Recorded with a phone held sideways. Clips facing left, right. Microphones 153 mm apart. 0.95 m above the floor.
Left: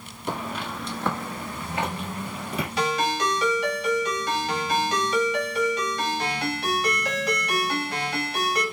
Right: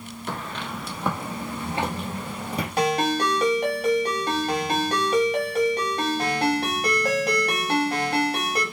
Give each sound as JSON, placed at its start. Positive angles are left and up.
{"t": 0.3, "sound": "footsteps", "side_deg": 15, "distance_m": 0.9}
{"t": 2.8, "sound": "a ringtone", "side_deg": -55, "distance_m": 1.5}